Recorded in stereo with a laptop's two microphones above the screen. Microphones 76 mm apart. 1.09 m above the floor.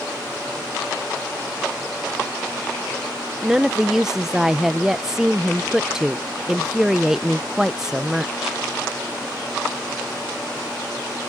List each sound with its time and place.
3.4 s a woman speaking: 5° right (ahead or behind)